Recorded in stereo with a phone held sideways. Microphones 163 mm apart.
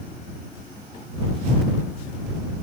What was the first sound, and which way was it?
Only background noise.